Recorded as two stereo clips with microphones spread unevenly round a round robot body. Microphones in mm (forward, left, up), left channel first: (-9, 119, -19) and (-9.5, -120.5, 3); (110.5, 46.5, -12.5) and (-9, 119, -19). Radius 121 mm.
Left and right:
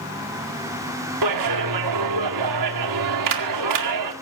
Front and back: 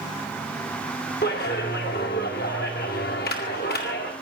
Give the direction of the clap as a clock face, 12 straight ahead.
3 o'clock.